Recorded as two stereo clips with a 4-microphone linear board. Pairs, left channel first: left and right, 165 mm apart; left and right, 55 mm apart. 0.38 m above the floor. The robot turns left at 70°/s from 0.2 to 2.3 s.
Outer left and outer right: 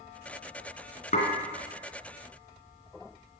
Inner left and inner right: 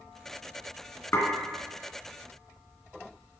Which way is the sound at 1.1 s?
55° left (ahead or behind).